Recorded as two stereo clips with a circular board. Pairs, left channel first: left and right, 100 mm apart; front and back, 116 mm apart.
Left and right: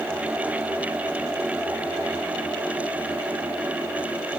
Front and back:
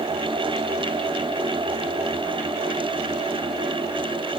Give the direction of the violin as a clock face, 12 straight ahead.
No violin in this recording.